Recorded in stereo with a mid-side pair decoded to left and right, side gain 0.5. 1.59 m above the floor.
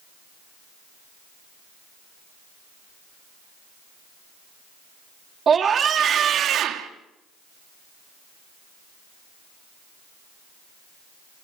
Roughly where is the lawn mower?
I don't hear a lawn mower.